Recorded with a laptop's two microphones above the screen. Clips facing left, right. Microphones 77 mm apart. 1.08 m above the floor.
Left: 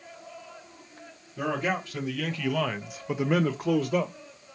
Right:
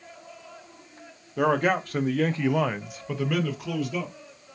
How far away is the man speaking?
About 0.9 m.